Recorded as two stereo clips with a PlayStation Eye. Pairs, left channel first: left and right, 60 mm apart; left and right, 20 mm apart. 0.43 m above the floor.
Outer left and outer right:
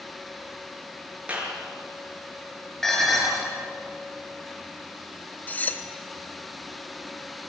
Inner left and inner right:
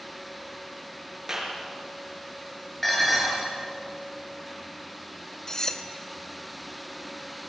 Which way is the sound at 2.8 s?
5° left (ahead or behind).